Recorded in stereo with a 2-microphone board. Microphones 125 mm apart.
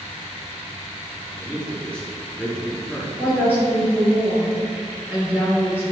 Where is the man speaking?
10° left (ahead or behind), 1.1 m.